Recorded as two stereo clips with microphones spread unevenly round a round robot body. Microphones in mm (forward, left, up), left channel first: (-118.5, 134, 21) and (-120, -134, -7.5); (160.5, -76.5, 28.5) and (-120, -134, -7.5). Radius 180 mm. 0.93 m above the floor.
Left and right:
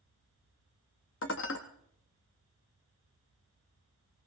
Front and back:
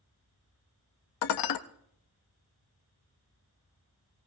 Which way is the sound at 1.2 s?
30° left.